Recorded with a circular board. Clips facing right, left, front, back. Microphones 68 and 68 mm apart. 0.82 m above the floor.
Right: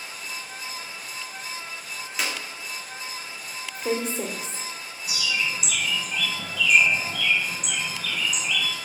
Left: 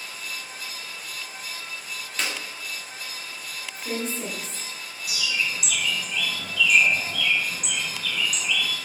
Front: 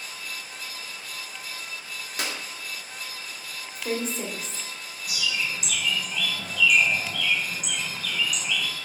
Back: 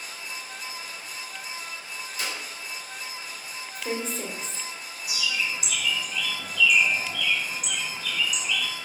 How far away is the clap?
About 1.8 m.